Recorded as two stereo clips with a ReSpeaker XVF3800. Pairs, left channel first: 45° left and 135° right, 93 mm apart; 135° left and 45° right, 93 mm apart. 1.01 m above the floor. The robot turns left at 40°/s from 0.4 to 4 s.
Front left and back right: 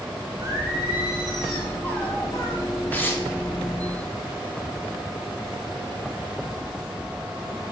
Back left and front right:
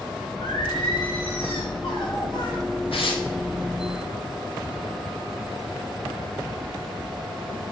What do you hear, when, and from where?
0.4 s singing: 175° left, 3.5 m; by 2.6 s 85° left, 3.5 m
2.9 s tearing paper: 120° left, 1.7 m; by 3.2 s 105° left, 1.7 m